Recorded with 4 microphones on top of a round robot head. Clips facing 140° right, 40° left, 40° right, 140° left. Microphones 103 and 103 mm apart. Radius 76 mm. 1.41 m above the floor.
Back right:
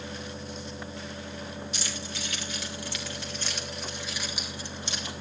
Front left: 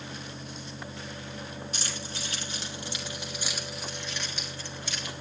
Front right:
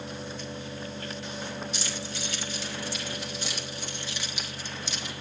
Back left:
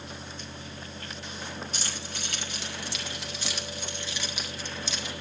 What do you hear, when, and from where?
1.7 s keys jangling: 90° left, 2.5 m; by 5.1 s 155° left, 2.0 m